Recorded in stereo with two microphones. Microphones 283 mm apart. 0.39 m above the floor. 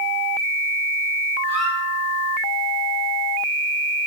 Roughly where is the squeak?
Left.